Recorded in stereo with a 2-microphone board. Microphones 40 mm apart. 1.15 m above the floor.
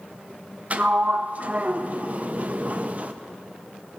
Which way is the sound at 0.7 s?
40° right (ahead or behind).